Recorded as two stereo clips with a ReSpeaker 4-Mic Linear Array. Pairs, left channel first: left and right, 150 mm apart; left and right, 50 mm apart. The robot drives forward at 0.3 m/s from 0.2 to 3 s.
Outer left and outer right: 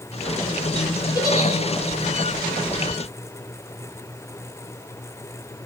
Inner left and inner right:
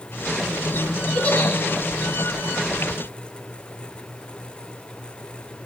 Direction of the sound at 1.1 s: 25° left (ahead or behind).